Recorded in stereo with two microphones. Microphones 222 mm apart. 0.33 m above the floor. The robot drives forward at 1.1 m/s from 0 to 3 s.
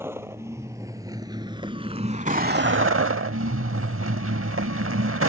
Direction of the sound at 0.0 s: 10° right (ahead or behind).